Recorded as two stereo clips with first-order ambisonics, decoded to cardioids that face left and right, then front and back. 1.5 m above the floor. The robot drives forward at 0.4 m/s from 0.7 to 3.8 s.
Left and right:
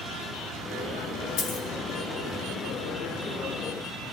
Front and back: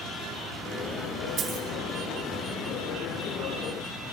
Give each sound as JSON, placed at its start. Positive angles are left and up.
{"t": 1.4, "sound": "a dropped coin", "azimuth_deg": 120, "distance_m": 5.0}